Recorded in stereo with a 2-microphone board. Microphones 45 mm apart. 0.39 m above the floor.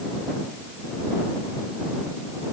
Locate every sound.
Only background noise.